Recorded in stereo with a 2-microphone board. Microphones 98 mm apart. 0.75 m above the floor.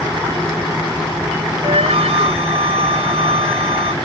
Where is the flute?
80° right.